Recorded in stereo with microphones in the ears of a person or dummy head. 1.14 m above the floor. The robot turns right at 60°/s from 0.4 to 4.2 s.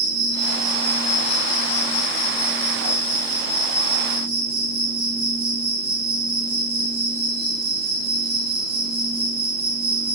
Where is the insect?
15° right, 4 m; by 10.2 s 150° right, 4 m.